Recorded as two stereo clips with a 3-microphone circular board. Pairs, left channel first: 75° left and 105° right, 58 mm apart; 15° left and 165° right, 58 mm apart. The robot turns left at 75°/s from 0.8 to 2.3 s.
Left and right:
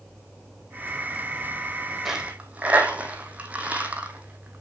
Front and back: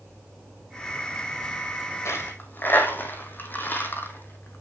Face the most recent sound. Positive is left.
turn(degrees=-35)